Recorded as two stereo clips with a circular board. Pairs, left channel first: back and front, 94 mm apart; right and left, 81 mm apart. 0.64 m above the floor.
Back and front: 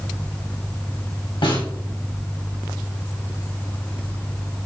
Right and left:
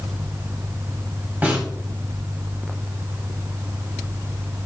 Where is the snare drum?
160° left, 3 m.